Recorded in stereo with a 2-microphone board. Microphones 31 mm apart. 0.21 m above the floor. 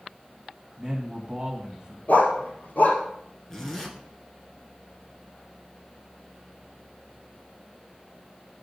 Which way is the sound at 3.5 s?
15° left (ahead or behind).